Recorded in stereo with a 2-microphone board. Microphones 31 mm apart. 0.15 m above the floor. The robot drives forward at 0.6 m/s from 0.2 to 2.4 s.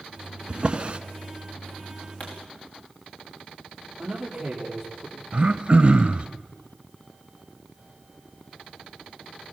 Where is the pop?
50° left (ahead or behind), 5.5 m.